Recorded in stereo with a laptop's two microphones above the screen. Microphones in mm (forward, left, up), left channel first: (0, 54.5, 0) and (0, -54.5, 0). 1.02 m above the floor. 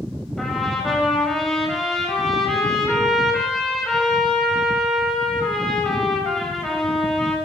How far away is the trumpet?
About 6.5 m.